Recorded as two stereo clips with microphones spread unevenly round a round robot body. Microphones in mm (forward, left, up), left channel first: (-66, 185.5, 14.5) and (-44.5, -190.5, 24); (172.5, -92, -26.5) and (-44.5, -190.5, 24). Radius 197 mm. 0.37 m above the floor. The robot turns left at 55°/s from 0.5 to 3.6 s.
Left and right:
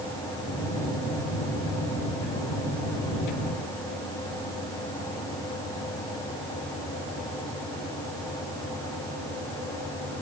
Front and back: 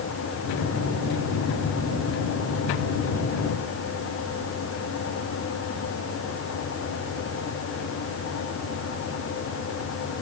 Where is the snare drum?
I don't hear a snare drum.